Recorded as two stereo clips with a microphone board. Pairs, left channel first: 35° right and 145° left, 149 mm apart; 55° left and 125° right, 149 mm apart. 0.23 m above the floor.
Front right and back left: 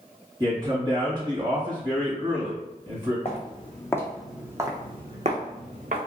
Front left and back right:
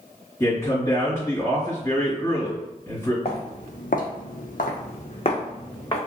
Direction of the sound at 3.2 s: 15° left.